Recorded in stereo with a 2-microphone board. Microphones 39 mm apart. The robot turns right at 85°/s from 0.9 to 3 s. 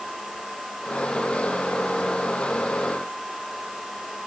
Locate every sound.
Only background noise.